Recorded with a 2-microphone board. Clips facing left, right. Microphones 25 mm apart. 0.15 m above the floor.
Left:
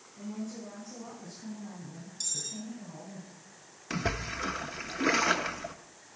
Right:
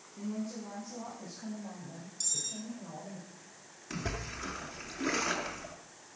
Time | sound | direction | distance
0.2 | a woman speaking | 80° right | 7.5 m
2.2 | cutlery clinking | 15° left (ahead or behind) | 1.9 m
3.9 | a splash | 25° left (ahead or behind) | 0.9 m